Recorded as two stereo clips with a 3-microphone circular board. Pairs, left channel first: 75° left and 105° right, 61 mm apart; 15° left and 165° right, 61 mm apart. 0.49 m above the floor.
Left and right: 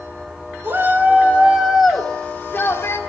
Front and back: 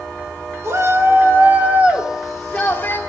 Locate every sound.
0.6 s a shout: 145° right, 2.5 m; by 3.0 s 65° left, 1.8 m